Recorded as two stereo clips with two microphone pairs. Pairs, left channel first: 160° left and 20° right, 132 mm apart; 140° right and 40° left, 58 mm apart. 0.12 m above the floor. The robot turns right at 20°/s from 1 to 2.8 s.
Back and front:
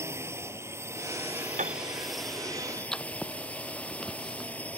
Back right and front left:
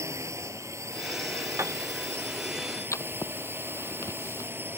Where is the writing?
115° right.